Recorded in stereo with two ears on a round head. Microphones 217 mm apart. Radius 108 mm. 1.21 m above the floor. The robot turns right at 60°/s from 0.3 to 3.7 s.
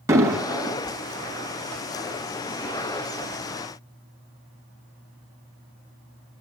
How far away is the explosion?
About 2 m.